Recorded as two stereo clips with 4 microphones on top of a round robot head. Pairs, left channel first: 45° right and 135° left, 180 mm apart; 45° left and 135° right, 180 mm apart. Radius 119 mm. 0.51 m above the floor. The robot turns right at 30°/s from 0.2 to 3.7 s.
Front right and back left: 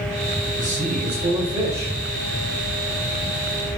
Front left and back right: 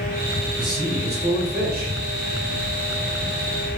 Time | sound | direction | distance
0.6 | a man speaking | 165° left | 2.0 m